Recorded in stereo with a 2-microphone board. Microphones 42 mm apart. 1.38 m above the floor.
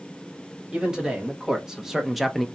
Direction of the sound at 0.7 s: 20° right (ahead or behind).